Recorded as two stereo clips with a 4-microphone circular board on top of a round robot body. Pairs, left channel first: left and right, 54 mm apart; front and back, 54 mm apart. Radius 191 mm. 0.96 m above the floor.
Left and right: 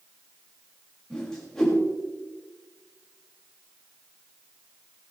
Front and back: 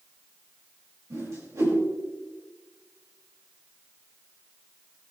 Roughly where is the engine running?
I don't hear an engine running.